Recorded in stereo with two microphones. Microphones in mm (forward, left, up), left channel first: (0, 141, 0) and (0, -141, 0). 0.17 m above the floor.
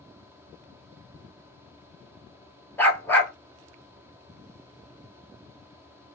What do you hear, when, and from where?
2.8 s a dog barking: 5° left (ahead or behind), 1.3 m